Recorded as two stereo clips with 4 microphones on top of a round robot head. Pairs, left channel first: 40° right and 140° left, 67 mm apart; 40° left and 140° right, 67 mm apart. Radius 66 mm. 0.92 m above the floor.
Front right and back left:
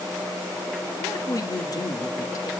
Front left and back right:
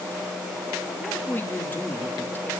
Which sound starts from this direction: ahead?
A woman speaking, at 1.0 s.